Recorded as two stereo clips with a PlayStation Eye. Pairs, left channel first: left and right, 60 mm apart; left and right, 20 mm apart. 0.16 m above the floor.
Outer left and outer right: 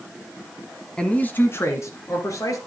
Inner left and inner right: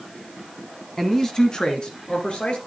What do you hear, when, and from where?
1.0 s a man speaking: 15° left (ahead or behind), 1.1 m; by 2.6 s 65° left (ahead or behind), 2.5 m